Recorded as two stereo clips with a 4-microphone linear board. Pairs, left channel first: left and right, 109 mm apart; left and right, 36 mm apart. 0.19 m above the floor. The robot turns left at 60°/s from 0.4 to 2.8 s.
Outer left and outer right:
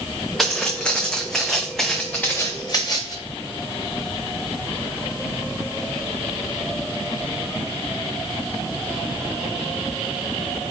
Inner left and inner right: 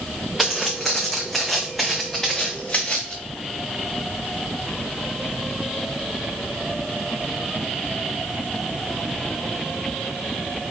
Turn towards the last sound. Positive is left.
turn(degrees=30)  # may be behind; listen again after turning